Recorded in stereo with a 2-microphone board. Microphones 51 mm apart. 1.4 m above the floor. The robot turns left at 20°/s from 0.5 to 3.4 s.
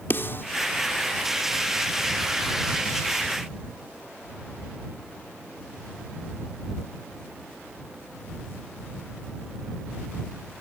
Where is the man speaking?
I don't hear a man speaking.